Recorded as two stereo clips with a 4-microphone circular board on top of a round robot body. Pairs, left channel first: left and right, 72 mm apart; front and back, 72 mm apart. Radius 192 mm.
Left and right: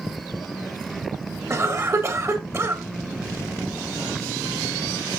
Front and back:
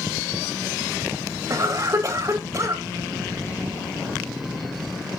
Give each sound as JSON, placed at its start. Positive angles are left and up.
{"t": 1.5, "sound": "a cough", "azimuth_deg": -135, "distance_m": 1.6}